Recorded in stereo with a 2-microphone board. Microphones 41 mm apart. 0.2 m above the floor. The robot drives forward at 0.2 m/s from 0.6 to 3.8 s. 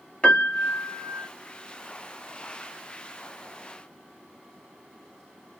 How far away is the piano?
About 0.7 m.